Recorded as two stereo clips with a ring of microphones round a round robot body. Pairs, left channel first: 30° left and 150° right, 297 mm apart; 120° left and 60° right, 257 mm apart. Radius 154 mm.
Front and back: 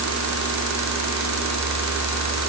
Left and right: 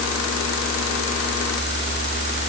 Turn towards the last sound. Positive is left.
No sound to turn to.